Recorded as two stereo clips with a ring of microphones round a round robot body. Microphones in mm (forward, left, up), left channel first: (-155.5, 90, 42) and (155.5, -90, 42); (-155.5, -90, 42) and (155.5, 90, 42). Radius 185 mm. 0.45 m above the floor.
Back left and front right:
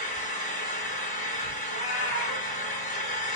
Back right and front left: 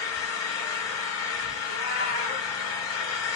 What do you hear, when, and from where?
0.0 s an engine running: 140° right, 4 m
1.7 s a cat meowing: 175° left, 2.5 m